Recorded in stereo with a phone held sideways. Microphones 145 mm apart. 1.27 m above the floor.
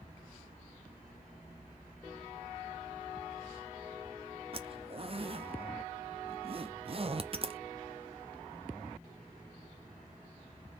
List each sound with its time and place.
4.5 s a zipper: 40° right (ahead or behind), 0.5 m